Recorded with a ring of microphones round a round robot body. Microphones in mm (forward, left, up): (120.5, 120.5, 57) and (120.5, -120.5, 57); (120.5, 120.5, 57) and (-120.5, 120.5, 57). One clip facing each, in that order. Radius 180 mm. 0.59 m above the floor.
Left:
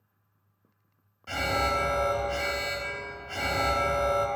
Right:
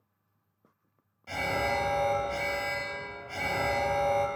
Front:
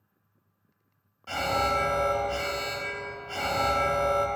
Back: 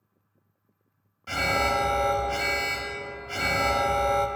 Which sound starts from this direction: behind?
An alarm, at 1.3 s.